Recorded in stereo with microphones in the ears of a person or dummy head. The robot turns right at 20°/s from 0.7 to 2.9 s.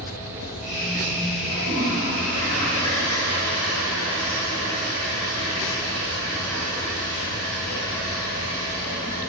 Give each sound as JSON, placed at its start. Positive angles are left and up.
{"t": 1.5, "sound": "a toilet flushing", "side_deg": 55, "distance_m": 4.0}